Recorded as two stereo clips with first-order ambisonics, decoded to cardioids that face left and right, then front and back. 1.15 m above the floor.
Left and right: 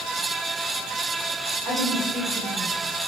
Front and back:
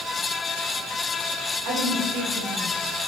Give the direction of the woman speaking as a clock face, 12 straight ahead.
5 o'clock.